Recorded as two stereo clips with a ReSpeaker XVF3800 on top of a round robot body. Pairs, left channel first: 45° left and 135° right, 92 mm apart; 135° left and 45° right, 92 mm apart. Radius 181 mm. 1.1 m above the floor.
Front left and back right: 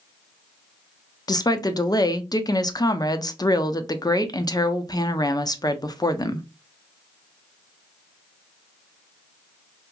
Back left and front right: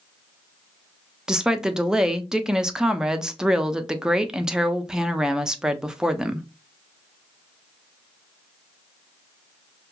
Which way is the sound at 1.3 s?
35° left.